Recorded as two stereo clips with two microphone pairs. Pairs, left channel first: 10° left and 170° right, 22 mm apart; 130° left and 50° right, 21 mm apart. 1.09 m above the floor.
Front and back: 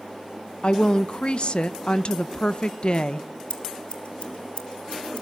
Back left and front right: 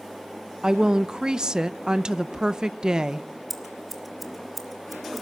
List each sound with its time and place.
0.6 s a woman speaking: 20° right, 0.7 m
3.5 s scissors: 35° left, 2 m